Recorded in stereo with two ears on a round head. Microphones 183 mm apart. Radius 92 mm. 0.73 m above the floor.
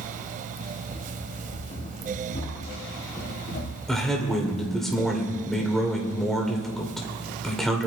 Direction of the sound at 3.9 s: Centre (ahead or behind).